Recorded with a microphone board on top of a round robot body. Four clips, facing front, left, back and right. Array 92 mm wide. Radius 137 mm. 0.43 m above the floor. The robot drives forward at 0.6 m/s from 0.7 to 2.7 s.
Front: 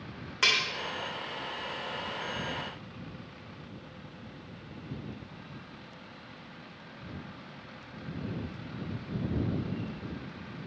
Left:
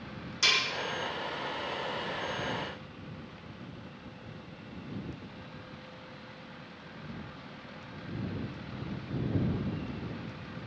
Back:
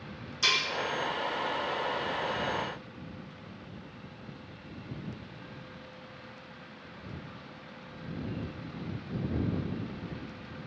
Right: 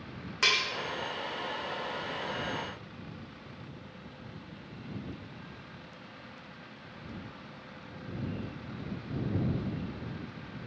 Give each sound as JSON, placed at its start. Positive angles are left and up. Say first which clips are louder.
{"t": 0.4, "sound": "cutlery clinking", "louder": "right 1 dB, front 2 dB", "azimuth_deg": -40, "distance_m": 1.1}